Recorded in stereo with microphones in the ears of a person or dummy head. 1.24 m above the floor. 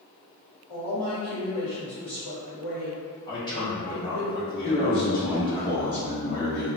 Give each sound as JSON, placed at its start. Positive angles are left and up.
{"t": 0.7, "sound": "a woman speaking", "side_deg": 35, "distance_m": 1.7}
{"t": 3.3, "sound": "a man speaking", "side_deg": 25, "distance_m": 0.8}
{"t": 4.6, "sound": "a man speaking", "side_deg": 45, "distance_m": 1.3}